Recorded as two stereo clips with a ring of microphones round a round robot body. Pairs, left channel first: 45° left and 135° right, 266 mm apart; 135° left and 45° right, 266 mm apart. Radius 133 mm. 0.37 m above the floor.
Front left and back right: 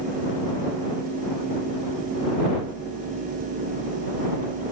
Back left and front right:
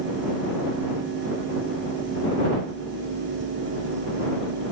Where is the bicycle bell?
I don't hear a bicycle bell.